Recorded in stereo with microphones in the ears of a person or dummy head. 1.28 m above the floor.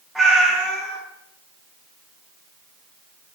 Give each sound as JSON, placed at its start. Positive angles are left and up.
{"t": 0.1, "sound": "a cat meowing", "side_deg": -5, "distance_m": 0.5}